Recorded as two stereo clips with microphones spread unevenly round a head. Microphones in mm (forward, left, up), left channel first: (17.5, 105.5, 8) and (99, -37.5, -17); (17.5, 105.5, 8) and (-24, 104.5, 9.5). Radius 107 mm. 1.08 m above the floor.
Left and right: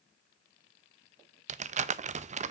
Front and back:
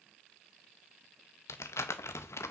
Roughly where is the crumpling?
Ahead.